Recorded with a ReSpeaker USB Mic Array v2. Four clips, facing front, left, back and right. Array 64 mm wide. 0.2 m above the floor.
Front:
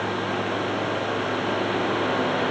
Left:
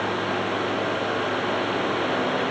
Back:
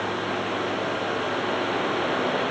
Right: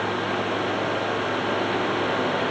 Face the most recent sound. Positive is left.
No sound to turn to.